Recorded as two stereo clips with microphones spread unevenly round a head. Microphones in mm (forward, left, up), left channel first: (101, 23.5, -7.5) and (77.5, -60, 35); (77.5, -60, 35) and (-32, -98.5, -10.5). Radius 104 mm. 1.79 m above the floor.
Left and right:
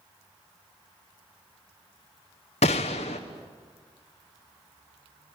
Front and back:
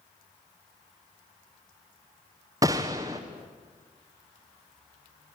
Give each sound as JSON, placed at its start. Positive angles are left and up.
{"t": 2.6, "sound": "a gunshot", "azimuth_deg": 120, "distance_m": 1.0}